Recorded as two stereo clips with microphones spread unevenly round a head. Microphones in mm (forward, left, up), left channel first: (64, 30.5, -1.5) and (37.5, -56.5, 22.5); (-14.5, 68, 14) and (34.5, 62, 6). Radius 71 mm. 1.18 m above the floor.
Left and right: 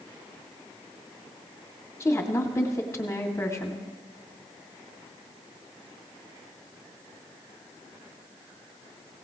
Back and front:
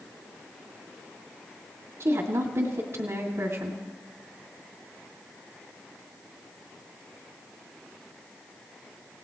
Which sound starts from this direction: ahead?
A woman speaking, at 2.0 s.